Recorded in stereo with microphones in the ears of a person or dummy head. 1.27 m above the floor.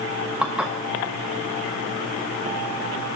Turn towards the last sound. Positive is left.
turn(degrees=-10)  # may be behind; listen again after turning